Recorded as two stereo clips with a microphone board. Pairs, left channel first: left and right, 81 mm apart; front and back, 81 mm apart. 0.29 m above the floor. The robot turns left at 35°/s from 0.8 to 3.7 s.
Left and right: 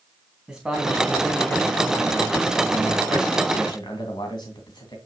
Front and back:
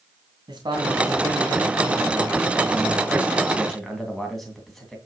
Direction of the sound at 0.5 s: 170° right.